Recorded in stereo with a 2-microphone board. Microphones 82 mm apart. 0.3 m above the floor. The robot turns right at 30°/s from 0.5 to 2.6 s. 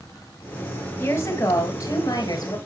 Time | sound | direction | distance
1.0 | a woman speaking | 35° left | 2 m